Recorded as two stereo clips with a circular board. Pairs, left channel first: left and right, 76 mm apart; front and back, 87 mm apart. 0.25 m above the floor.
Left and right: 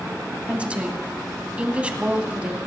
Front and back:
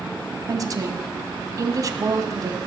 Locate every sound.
0.5 s a woman speaking: 155° right, 1.6 m